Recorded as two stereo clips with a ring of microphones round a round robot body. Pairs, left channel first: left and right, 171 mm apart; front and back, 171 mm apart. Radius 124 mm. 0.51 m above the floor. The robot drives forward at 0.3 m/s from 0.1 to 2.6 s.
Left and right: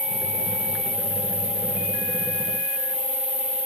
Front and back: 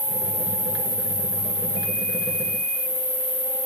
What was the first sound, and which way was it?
An insect, 175° left.